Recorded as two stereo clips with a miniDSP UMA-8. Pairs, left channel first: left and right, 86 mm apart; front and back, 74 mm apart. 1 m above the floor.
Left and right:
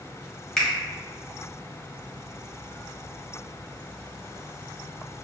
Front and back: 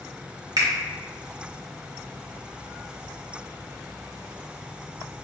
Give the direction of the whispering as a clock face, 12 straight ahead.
No whispering in this recording.